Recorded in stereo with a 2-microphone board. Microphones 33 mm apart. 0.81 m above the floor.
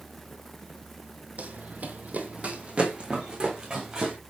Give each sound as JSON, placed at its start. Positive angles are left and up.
{"t": 1.4, "sound": "running footsteps", "side_deg": -45, "distance_m": 1.1}